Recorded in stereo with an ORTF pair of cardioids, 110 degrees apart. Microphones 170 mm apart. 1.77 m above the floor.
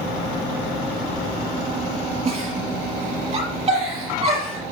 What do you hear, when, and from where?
2.2 s a giggle: 40° right, 6.5 m